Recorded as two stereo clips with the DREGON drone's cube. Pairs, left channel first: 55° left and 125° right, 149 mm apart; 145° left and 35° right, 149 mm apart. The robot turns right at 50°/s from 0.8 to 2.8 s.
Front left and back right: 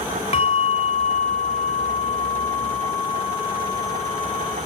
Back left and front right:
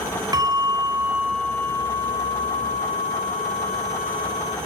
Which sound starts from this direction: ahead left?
A bell, at 0.3 s.